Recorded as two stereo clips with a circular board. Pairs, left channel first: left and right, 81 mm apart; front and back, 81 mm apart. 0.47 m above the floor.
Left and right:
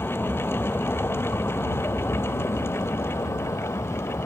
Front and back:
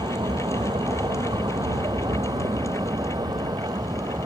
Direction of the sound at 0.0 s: 155° left.